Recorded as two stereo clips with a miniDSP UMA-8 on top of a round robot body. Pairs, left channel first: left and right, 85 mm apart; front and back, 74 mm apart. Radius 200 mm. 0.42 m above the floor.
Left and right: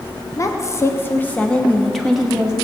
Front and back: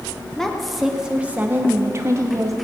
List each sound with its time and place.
0.4 s a woman speaking: 80° left, 1.4 m; by 2.5 s 165° right, 1.5 m